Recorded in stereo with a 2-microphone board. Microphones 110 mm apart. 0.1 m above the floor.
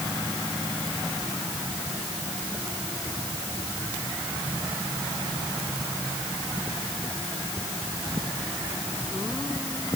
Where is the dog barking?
No dog barking in this recording.